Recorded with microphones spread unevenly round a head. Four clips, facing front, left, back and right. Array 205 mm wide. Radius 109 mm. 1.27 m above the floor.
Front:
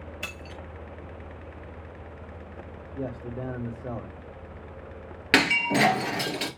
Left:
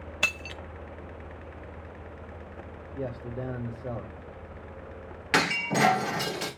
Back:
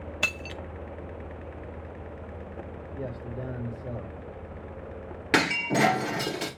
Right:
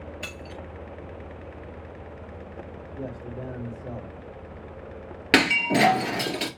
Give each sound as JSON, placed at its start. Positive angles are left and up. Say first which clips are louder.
{"t": 0.2, "sound": "breaking glass", "louder": "left 3 dB, back 5 dB", "azimuth_deg": 100, "distance_m": 0.7}
{"t": 3.0, "sound": "a man speaking", "louder": "left 1 dB, front 3 dB", "azimuth_deg": 25, "distance_m": 1.3}
{"t": 5.3, "sound": "breaking glass", "louder": "right 5 dB, front 1 dB", "azimuth_deg": -75, "distance_m": 1.9}